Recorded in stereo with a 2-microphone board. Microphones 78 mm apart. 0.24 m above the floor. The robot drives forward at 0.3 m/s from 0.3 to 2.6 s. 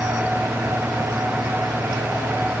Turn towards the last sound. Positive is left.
No sound to turn to.